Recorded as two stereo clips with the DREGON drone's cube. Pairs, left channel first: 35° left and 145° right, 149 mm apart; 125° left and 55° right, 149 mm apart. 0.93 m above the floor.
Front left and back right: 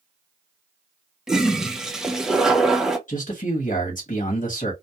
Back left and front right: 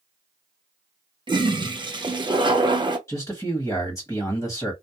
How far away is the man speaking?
About 1.1 m.